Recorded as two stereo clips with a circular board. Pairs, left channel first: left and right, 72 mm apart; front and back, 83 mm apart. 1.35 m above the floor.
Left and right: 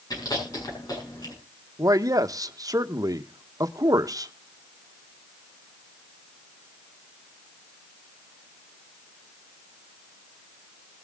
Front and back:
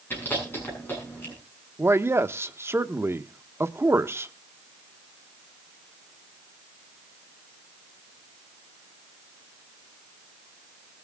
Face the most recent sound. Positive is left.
turn(degrees=-120)